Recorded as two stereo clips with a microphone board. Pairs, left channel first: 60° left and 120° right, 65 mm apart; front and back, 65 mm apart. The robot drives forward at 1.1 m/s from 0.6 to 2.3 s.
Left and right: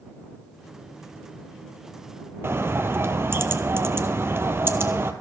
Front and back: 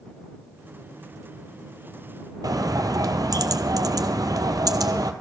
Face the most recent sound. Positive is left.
turn(degrees=-170)